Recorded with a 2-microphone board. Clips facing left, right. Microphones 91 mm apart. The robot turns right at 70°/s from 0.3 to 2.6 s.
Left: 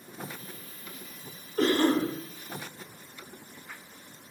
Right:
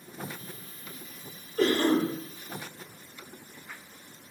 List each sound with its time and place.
1.6 s a cough: 110° left, 1.9 m; by 2.1 s 145° left, 1.9 m